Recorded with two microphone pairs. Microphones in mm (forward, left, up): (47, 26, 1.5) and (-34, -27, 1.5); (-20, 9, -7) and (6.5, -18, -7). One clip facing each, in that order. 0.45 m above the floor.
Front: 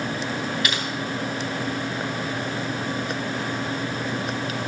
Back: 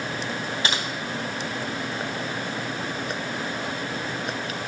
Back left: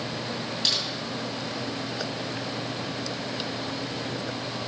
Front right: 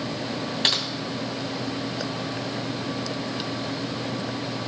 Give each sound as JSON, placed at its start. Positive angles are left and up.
{"t": 0.6, "sound": "typing on a keyboard", "azimuth_deg": -90, "distance_m": 2.5}